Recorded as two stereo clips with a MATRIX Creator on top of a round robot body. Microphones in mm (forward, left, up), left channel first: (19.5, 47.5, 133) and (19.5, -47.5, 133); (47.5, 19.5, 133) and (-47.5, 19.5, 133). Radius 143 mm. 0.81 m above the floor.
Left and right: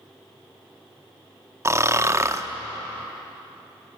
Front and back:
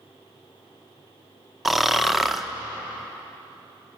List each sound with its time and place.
1.6 s snoring: 95° right, 1.1 m